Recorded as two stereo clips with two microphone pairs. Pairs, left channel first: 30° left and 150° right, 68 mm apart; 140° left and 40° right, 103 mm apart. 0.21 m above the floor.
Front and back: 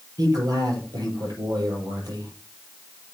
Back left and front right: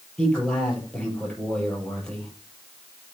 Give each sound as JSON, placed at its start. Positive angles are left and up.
{"t": 0.2, "sound": "a man speaking", "azimuth_deg": -140, "distance_m": 6.5}